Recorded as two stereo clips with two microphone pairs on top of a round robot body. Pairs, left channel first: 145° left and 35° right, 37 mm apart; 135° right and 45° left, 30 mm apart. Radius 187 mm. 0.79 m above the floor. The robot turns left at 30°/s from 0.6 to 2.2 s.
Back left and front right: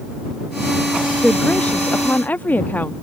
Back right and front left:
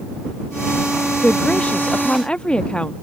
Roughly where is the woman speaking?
Behind right.